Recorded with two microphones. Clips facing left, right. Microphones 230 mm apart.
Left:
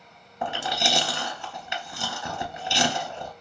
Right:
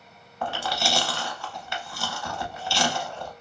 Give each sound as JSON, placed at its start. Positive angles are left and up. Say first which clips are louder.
{"t": 0.4, "sound": "chewing", "louder": "even", "side_deg": 20, "distance_m": 0.5}